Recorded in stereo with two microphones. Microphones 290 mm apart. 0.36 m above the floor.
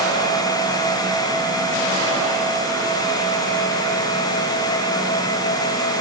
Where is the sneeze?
No sneeze in this recording.